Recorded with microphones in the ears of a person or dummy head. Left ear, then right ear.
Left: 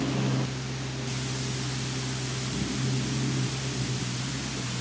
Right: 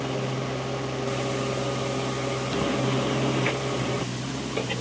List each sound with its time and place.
Only background noise.